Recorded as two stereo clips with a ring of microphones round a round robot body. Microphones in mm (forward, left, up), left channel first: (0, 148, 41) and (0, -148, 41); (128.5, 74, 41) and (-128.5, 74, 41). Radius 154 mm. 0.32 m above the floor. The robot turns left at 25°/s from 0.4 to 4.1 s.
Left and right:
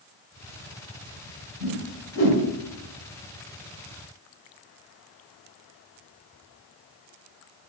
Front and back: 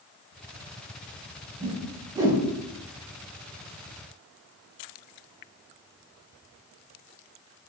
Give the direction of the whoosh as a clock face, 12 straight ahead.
8 o'clock.